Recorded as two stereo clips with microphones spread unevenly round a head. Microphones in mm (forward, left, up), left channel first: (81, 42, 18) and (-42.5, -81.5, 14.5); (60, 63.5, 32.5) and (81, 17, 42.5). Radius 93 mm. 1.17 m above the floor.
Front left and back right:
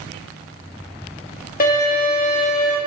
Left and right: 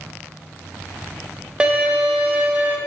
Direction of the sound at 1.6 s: 10° left.